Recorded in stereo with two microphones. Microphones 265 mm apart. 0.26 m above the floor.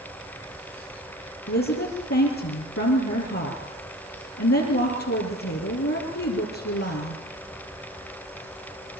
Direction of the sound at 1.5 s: 65° left (ahead or behind).